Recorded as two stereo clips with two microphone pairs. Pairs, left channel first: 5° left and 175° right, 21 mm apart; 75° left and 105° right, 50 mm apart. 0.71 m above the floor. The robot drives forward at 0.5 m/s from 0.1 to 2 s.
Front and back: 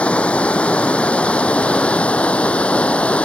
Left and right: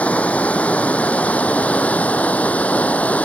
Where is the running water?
15° left.